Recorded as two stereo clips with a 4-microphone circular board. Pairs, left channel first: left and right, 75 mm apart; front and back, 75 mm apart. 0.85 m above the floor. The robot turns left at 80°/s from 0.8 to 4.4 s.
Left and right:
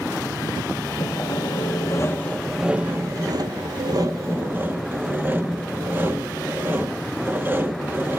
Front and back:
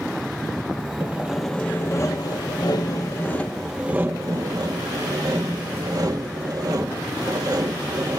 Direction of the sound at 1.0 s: 120° left.